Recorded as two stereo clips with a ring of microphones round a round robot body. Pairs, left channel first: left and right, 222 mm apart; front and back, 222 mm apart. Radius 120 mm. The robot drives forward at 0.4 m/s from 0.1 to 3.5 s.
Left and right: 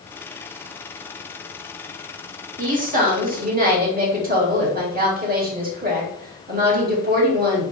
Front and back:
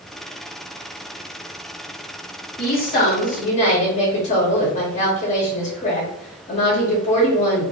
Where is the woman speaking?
40° right, 1.8 m; by 7.7 s 55° right, 1.6 m.